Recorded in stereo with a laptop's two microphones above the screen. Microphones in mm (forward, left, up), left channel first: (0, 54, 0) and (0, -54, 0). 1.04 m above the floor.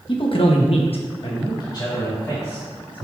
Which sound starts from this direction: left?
A man speaking, at 0.1 s.